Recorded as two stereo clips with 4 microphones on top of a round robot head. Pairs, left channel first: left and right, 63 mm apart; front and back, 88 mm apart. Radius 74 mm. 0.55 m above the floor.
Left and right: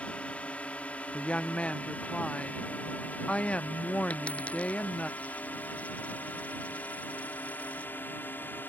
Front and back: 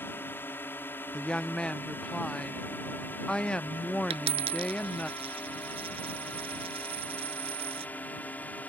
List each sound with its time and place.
0.0 s a drone: 40° left; by 8.7 s 60° left
1.1 s a woman speaking: 65° left
4.1 s a dropped coin: 170° left